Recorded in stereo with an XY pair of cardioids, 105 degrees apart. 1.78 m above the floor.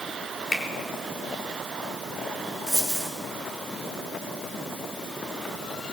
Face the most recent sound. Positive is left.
turn(degrees=-5)